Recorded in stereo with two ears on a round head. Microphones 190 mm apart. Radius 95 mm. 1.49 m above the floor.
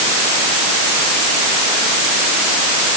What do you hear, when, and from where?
Only background noise.